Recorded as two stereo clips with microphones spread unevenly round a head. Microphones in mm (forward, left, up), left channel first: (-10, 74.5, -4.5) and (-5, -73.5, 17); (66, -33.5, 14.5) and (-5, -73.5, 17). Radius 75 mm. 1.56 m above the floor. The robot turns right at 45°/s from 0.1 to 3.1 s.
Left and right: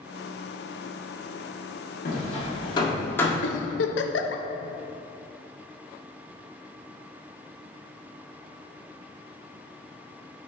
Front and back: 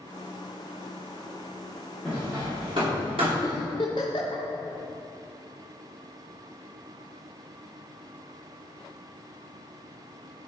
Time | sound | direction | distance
2.0 | hammering | 125° left | 2 m
3.4 | a giggle | 90° left | 0.7 m